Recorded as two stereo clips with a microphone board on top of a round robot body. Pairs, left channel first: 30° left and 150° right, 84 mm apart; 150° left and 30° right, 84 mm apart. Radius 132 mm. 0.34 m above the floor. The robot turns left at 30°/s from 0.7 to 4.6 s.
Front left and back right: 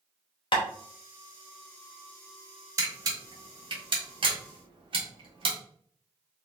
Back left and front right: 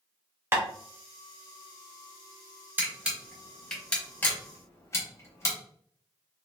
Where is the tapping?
30° left, 0.9 m.